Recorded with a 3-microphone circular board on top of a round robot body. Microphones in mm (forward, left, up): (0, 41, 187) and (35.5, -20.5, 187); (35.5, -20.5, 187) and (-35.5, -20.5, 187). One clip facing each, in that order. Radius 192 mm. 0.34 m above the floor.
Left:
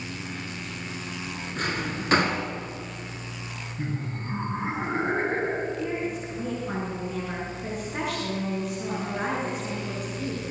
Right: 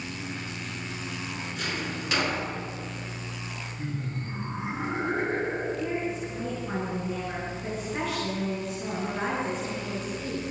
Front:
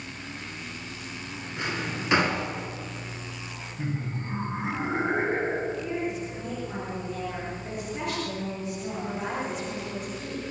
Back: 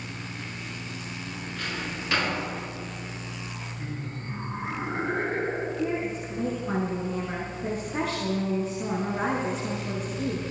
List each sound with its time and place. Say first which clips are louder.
1.6 s a drawer: left 5 dB, front 4 dB; 70° left, 3 m
3.8 s laughter: left 3 dB, front 7 dB; 65° left, 5.5 m
5.8 s a woman speaking: even, back 2 dB; 160° right, 6.5 m